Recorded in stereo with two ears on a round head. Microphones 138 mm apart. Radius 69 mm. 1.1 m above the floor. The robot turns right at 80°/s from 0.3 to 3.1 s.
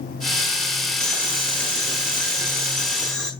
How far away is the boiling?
About 4.5 m.